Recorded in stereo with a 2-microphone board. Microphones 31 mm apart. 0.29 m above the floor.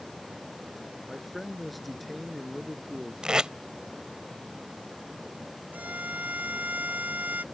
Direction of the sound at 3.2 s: 30° right (ahead or behind).